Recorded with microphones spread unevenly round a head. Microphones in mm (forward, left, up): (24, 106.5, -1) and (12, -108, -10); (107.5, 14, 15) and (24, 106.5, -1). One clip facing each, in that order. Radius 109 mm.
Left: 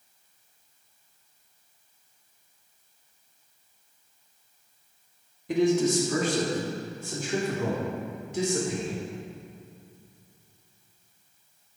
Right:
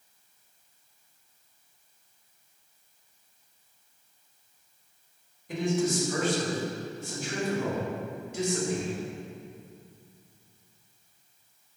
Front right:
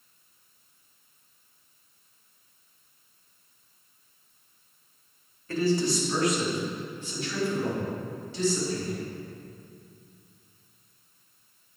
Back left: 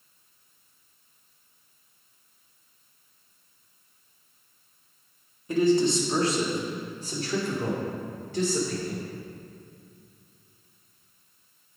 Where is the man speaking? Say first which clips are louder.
Left 5 dB, back left 4 dB; 60° left, 2 m; by 9.0 s 95° left, 4 m.